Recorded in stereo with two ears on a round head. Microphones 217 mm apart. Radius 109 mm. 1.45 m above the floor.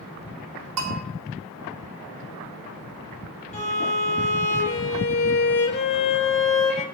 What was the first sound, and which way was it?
A bell, 70° right (ahead or behind).